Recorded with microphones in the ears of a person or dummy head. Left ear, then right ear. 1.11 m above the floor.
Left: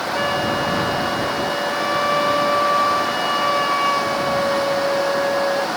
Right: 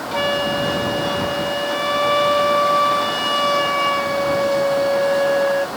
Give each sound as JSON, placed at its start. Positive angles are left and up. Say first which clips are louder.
{"t": 0.1, "sound": "a flute", "louder": "right 2 dB", "side_deg": -20}